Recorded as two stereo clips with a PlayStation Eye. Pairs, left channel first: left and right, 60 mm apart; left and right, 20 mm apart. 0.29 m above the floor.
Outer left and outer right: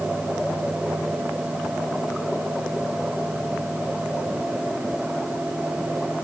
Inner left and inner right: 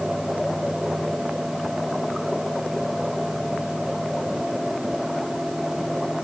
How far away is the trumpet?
I don't hear a trumpet.